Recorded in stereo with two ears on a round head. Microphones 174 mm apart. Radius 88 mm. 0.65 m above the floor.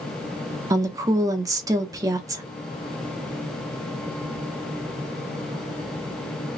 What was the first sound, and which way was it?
A woman speaking, 20° right (ahead or behind).